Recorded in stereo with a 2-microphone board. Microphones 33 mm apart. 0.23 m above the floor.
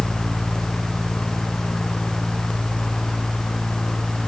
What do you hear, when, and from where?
Only background noise.